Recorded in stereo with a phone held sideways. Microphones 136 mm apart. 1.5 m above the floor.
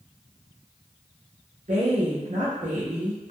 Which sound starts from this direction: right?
A woman speaking, at 1.7 s.